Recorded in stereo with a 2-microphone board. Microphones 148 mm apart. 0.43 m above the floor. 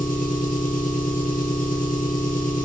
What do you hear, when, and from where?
0.0 s an engine running: 80° left, 3 m